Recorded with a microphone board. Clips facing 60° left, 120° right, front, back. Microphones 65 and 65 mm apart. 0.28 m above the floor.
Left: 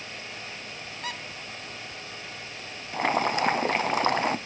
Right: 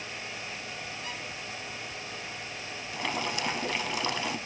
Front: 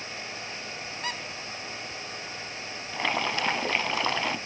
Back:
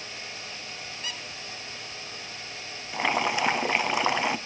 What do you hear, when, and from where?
1.0 s a squeak: 50° left, 0.9 m
2.9 s boiling: 105° left, 0.7 m